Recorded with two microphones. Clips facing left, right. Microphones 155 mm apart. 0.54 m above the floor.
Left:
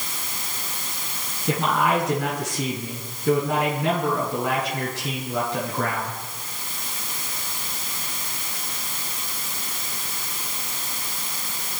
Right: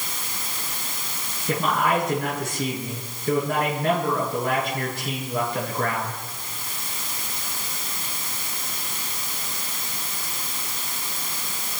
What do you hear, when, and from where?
1.5 s a man speaking: 80° left, 6 m